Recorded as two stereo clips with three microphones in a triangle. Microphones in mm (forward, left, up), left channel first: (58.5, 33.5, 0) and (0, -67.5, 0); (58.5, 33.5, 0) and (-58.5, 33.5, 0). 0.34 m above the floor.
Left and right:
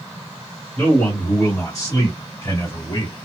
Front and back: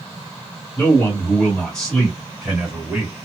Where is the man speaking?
25° left, 1.4 m; by 3.1 s 100° left, 1.9 m.